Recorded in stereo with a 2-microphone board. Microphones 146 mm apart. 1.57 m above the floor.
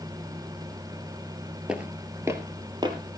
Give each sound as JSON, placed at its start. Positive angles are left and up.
{"t": 1.7, "sound": "footsteps", "side_deg": -5, "distance_m": 1.9}